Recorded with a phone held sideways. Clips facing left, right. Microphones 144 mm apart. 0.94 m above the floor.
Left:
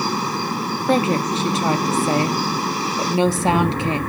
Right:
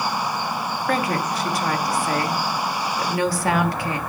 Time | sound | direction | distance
0.9 | a woman speaking | 25° left (ahead or behind) | 1.2 m